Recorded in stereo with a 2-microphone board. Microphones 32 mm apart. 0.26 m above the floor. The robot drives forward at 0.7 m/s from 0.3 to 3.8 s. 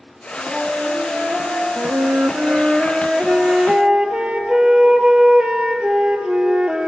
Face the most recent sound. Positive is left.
turn(degrees=-30)  # may be behind; listen again after turning